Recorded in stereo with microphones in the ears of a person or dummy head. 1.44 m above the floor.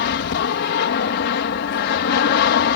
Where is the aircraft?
60° left (ahead or behind).